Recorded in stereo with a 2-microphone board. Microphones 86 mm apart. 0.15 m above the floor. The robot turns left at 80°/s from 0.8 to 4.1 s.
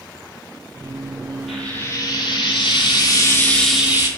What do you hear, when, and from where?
1.5 s frying: 175° left, 0.7 m; by 4.1 s 30° right, 0.7 m